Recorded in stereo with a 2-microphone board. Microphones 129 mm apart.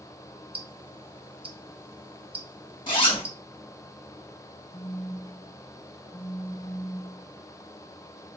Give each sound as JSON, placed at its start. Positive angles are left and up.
{"t": 0.5, "sound": "ticking", "side_deg": -40, "distance_m": 0.6}
{"t": 2.9, "sound": "a zipper", "side_deg": 40, "distance_m": 1.2}
{"t": 4.7, "sound": "a phone buzzing", "side_deg": 15, "distance_m": 1.6}